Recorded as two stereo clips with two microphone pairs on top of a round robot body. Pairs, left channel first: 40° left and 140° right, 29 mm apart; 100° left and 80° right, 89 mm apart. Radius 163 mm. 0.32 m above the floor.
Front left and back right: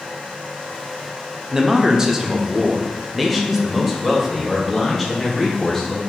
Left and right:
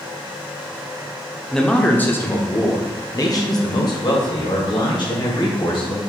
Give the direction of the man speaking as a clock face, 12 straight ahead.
6 o'clock.